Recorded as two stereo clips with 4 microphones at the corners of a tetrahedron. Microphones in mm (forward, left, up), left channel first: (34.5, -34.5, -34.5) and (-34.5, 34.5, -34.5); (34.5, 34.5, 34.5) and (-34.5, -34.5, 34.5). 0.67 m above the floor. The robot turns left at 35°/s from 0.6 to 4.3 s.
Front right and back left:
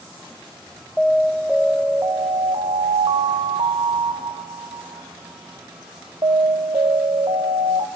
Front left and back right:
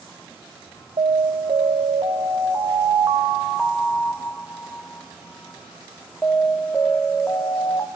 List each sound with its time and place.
1.0 s an alarm: 115° right, 2 m; by 7.9 s 125° left, 2 m